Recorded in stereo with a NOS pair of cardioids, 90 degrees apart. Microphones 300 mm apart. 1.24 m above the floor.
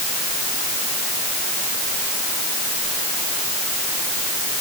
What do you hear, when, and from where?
Only background noise.